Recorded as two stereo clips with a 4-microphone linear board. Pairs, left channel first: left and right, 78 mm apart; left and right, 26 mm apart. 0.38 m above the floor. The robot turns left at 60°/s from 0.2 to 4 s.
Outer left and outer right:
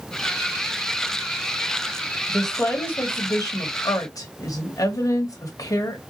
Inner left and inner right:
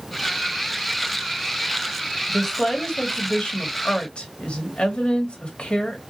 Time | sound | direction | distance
2.3 | a woman speaking | straight behind | 1.4 m